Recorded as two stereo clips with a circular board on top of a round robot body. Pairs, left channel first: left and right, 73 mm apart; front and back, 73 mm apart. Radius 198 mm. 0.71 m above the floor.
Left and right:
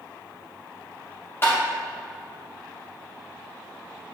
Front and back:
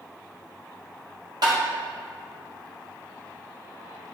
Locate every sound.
1.4 s tapping: 150° left, 3 m